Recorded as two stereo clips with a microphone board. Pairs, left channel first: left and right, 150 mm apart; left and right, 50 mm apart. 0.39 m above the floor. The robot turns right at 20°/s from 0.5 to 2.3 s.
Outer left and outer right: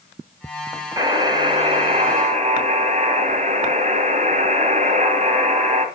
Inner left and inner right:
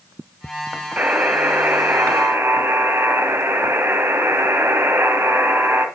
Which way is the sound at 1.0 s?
25° right (ahead or behind).